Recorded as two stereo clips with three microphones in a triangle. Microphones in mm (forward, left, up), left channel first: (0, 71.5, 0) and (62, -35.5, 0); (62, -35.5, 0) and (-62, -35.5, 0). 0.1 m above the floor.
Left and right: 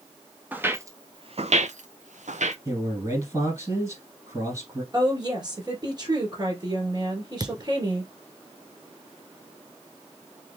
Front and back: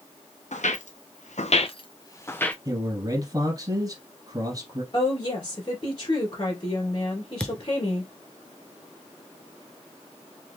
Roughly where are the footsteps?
Ahead.